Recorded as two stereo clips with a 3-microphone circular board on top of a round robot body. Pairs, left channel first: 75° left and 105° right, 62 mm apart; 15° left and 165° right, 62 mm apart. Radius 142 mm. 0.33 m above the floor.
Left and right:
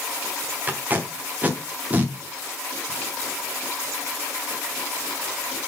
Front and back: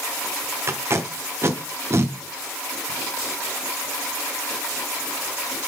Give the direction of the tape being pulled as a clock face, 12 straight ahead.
5 o'clock.